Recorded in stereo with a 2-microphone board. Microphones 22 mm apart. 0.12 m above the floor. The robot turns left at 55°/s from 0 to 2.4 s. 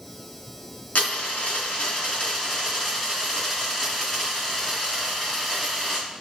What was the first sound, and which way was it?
A dropped coin, 95° left.